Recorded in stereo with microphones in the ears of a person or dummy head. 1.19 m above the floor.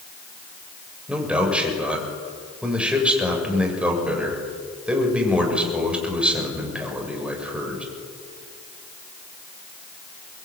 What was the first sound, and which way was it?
A man speaking, 5° right (ahead or behind).